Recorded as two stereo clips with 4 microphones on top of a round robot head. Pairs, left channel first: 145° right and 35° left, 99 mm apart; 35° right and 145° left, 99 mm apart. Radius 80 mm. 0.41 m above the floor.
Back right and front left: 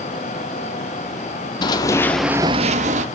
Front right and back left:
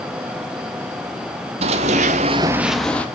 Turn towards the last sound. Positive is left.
turn(degrees=40)